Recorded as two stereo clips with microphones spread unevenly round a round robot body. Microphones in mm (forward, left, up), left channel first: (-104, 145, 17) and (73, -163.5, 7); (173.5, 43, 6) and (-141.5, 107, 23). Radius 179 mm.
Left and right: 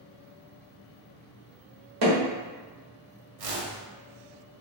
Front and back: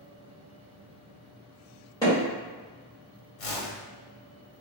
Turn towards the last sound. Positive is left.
turn(degrees=-30)